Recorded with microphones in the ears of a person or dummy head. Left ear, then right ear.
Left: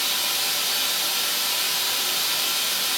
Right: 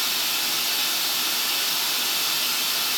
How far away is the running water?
About 1.3 m.